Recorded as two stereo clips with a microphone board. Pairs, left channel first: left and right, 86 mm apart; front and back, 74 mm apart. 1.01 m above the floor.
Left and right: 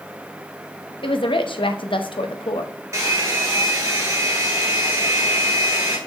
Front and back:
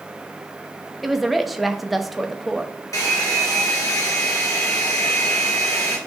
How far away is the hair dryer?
About 2.5 m.